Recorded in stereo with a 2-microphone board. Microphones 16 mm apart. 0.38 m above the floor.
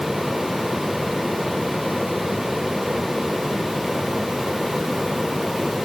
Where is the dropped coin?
No dropped coin in this recording.